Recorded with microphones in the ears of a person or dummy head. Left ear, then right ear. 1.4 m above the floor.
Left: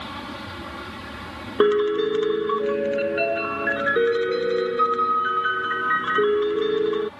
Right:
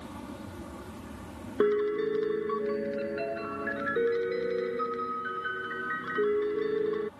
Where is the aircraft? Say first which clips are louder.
Left 10 dB; 60° left (ahead or behind); by 7.2 s 65° left (ahead or behind).